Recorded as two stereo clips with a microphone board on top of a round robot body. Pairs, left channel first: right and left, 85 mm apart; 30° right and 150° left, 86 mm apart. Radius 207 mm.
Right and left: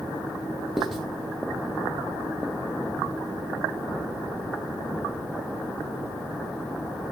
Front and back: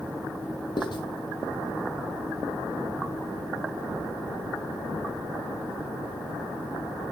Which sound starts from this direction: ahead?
Writing, at 0.8 s.